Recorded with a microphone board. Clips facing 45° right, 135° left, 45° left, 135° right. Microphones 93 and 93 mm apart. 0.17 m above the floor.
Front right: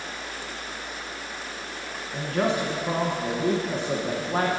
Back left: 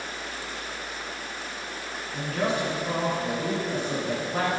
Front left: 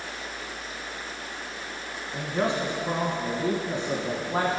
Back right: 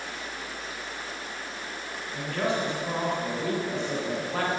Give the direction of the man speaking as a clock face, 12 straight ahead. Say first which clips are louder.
Front right 2 dB, front left 2 dB; 12 o'clock.